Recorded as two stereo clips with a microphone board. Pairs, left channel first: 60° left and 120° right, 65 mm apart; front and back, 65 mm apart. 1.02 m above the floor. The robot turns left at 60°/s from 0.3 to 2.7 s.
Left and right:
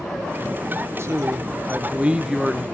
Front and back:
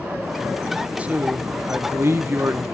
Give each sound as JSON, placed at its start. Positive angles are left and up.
{"t": 1.0, "sound": "a man speaking", "azimuth_deg": -120, "distance_m": 0.7}